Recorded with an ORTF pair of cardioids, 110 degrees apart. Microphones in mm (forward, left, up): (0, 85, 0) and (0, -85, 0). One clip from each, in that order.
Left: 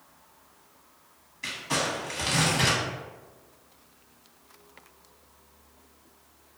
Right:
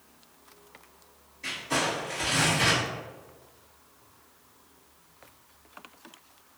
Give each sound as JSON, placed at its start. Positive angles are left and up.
{"t": 1.4, "sound": "crumpling", "azimuth_deg": 60, "distance_m": 1.1}